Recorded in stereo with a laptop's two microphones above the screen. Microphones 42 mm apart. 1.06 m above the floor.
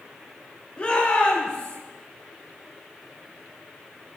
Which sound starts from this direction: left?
A shout, at 0.8 s.